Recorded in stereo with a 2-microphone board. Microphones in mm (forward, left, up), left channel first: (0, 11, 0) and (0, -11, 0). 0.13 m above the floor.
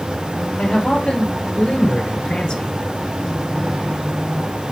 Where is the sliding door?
I don't hear a sliding door.